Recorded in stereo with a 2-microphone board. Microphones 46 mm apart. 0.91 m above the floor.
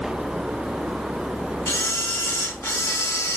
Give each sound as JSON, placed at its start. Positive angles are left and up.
{"t": 1.7, "sound": "a camera shutter", "side_deg": 75, "distance_m": 1.9}